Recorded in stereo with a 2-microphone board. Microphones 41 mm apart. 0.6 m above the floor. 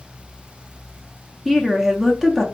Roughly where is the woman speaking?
Centre.